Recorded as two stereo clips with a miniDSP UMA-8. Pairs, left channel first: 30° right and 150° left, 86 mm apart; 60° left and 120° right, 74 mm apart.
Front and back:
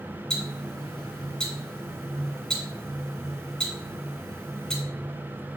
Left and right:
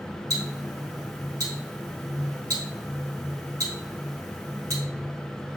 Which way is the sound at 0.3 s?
110° right.